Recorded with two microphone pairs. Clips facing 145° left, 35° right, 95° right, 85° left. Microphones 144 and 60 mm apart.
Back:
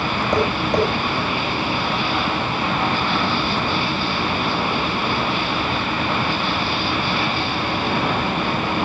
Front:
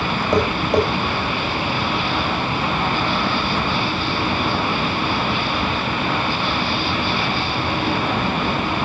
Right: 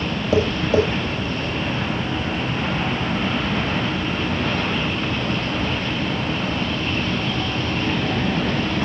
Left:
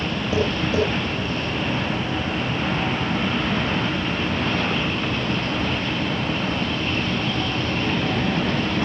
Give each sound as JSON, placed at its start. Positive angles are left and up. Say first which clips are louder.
{"t": 0.3, "sound": "tapping", "louder": "front 2 dB, right 4 dB", "azimuth_deg": -115, "distance_m": 8.0}